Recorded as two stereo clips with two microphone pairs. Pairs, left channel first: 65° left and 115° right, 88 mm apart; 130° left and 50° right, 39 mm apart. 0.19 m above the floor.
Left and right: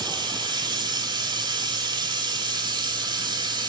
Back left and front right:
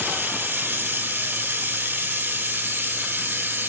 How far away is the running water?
About 0.9 m.